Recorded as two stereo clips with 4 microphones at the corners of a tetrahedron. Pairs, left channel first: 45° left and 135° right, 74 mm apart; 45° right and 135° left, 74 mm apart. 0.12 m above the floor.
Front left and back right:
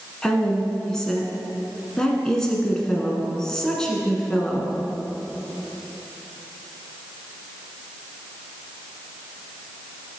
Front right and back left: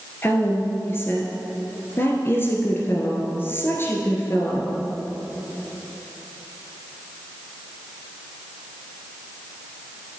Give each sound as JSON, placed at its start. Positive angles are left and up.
{"t": 0.2, "sound": "a woman speaking", "azimuth_deg": -30, "distance_m": 1.2}